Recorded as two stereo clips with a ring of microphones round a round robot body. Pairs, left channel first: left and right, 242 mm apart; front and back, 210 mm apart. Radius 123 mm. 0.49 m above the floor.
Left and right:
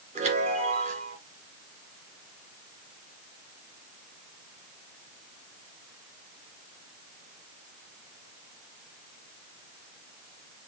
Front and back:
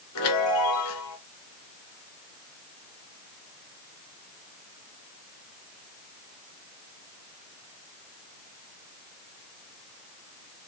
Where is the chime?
25° right, 2.0 m.